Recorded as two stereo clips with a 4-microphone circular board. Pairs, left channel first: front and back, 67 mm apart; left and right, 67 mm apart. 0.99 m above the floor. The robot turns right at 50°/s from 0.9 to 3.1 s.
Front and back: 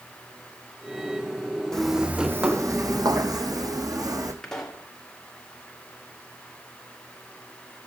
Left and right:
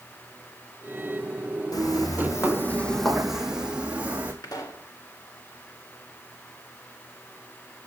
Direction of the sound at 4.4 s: 80° left.